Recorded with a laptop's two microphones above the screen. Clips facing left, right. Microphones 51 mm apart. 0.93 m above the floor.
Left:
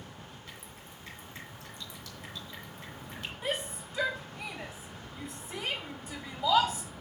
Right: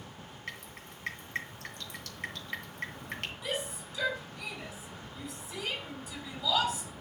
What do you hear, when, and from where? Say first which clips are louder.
0.5 s dripping: right 4 dB; 65° right (ahead or behind), 2 m
3.4 s a shout: left 4 dB; 45° left (ahead or behind), 3 m